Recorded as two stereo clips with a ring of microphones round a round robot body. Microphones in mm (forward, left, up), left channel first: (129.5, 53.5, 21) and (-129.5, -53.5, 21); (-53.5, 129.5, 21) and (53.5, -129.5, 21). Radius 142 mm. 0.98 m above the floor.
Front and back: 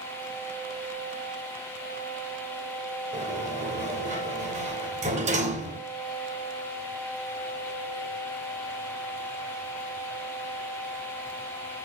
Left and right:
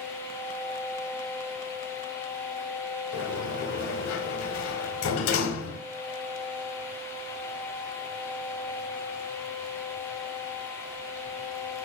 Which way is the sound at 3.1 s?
140° left.